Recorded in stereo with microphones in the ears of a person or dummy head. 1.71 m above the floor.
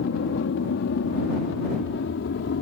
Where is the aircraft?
70° left (ahead or behind).